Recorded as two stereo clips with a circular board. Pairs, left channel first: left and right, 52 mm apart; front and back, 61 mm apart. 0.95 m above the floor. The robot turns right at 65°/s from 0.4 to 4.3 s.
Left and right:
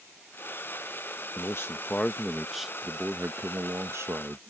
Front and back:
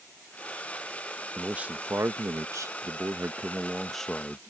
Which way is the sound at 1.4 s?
105° left.